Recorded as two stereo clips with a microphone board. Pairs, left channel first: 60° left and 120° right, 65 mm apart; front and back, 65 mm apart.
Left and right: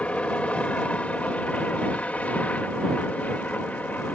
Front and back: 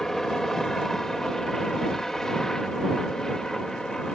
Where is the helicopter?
70° left; by 4.1 s 65° left.